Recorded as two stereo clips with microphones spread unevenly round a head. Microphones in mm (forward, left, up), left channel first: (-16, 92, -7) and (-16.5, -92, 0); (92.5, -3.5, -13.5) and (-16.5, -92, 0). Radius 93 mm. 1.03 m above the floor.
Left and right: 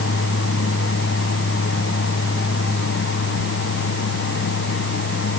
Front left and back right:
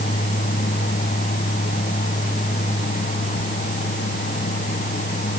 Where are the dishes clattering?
I don't hear dishes clattering.